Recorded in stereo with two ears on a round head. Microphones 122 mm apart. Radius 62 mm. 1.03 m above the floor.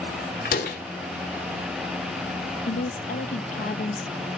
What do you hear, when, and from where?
0.5 s a door slam: 65° left (ahead or behind), 2.0 m
2.7 s a woman speaking: 65° left (ahead or behind), 0.9 m